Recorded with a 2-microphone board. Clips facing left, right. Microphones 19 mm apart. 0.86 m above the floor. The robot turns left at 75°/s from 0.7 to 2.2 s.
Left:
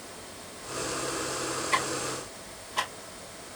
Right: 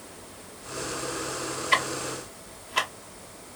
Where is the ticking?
70° right (ahead or behind), 1.1 m.